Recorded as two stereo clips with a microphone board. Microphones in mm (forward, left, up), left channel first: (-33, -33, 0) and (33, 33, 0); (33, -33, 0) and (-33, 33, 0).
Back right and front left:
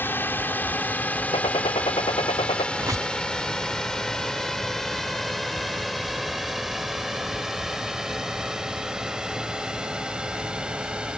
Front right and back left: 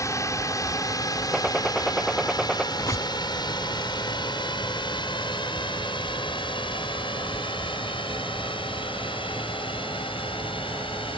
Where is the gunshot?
135° right.